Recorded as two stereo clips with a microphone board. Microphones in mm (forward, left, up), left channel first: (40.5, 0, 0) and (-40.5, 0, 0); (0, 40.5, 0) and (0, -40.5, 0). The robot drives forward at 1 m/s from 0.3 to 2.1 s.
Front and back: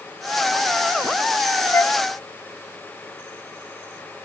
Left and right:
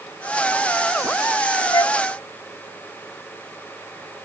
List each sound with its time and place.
1.7 s a flute: 55° left; by 2.0 s 60° left